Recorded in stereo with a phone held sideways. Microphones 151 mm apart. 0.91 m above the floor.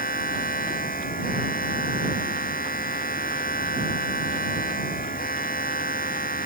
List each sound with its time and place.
0.0 s a machine running: 85° left